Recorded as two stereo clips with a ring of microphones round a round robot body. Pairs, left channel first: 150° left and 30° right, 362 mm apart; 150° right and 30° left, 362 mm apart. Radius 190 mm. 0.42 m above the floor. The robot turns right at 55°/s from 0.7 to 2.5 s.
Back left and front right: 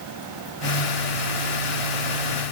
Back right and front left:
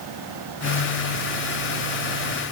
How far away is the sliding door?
I don't hear a sliding door.